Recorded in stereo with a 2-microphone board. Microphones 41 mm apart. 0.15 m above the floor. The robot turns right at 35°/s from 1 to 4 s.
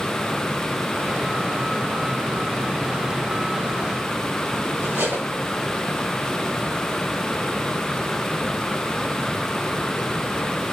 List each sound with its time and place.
4.8 s cutlery clinking: 50° right (ahead or behind), 9.5 m